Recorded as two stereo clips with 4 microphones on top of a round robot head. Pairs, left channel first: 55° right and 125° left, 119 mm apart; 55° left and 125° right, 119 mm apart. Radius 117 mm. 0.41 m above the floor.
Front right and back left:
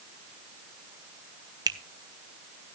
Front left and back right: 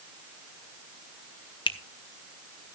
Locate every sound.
1.7 s a finger snap: 80° left, 1.4 m